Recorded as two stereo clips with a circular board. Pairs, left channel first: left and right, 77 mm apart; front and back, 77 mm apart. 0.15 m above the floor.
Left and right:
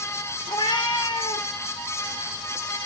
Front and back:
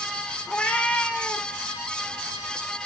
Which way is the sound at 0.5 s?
75° left.